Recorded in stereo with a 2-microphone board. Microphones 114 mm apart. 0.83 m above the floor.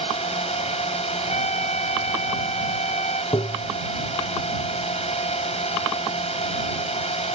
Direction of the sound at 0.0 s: 65° left (ahead or behind).